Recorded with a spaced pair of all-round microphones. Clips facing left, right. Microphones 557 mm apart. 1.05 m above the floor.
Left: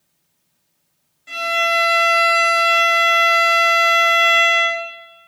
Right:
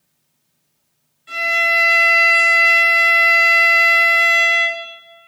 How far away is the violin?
About 1.2 m.